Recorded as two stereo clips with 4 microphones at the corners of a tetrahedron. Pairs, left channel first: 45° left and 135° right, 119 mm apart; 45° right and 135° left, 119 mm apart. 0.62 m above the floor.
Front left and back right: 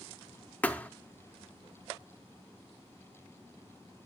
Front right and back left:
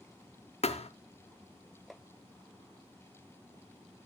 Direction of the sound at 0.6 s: 30° right.